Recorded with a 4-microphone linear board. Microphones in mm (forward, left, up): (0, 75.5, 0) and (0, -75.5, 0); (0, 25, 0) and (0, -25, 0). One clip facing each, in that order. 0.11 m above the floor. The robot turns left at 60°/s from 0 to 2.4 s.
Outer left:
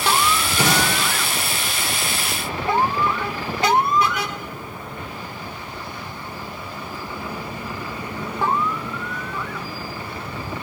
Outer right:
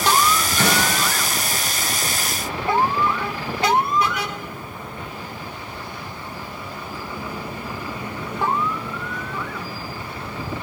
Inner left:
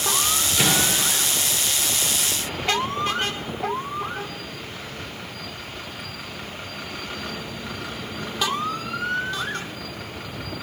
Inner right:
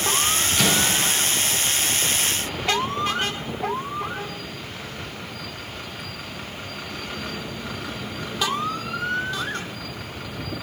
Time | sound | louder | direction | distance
0.6 | a microwave | outer left 1 dB, even | 10° left (ahead or behind) | 1.8 m